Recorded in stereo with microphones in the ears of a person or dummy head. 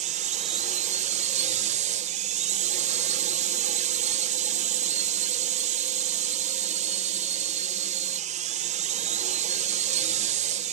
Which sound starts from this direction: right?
A drone, at 0.0 s.